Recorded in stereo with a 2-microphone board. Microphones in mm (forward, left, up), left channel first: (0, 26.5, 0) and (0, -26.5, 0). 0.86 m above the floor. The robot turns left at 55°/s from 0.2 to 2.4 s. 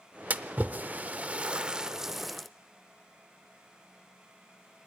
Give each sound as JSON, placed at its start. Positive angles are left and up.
{"t": 0.3, "sound": "a splash", "side_deg": -30, "distance_m": 0.5}